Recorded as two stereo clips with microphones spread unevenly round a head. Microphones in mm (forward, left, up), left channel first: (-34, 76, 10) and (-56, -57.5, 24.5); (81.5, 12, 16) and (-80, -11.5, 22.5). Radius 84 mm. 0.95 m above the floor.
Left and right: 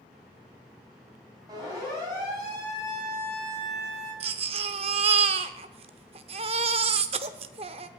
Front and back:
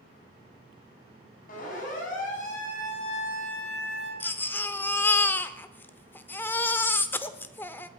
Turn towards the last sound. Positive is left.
turn(degrees=-70)